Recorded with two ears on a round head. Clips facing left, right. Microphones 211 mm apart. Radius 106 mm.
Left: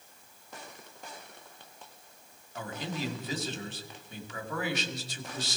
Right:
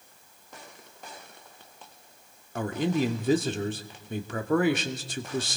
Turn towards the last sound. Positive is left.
turn(degrees=-45)  # may be behind; listen again after turning